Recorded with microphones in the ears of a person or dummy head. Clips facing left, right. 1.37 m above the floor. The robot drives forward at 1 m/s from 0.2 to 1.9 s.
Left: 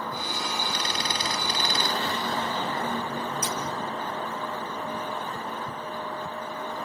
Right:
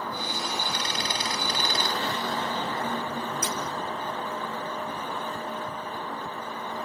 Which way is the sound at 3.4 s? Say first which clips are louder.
Even; 30° right (ahead or behind).